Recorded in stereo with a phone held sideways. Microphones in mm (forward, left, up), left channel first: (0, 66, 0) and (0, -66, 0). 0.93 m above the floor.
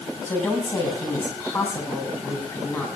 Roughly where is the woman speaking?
Left.